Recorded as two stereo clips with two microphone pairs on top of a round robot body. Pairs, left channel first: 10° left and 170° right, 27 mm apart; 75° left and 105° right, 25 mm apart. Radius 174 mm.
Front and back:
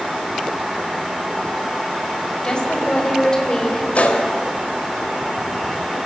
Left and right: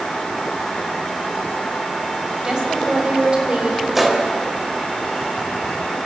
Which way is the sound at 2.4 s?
40° right.